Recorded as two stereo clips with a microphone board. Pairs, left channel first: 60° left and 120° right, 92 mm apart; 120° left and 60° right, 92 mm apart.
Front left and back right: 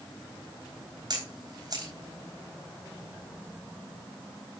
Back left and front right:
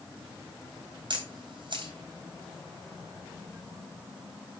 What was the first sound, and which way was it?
A camera shutter, 80° right.